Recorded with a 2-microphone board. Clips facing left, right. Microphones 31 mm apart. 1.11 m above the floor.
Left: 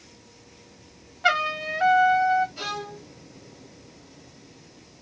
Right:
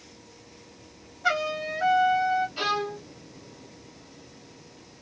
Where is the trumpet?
55° left (ahead or behind), 1.1 m.